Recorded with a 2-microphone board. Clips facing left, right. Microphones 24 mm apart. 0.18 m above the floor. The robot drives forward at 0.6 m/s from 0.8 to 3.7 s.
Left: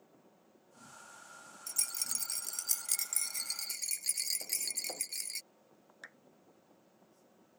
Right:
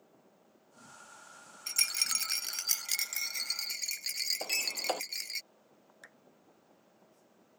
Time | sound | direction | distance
1.7 | a rattle | 50° right (ahead or behind) | ?
4.4 | a sliding door | 80° right | ?
6.0 | a clap | 15° left (ahead or behind) | ?